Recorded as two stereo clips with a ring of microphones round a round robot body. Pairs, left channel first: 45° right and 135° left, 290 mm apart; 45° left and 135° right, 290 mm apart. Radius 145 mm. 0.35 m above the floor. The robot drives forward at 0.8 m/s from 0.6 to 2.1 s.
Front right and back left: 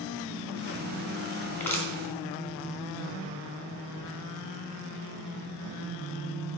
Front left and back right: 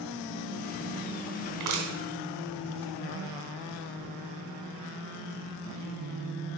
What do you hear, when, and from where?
1.6 s crushing: 125° right, 3 m; by 1.9 s 130° right, 3.5 m